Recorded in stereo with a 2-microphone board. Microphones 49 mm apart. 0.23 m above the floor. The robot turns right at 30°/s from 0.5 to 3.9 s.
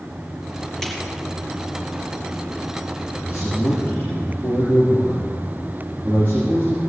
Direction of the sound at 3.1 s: 55° left (ahead or behind).